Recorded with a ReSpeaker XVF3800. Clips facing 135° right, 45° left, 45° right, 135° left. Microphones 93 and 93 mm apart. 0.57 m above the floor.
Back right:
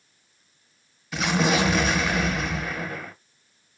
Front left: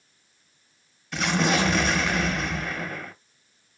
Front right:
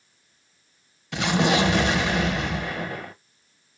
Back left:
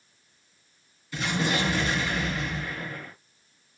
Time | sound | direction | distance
1.1 | an explosion | 50° right | 0.5 m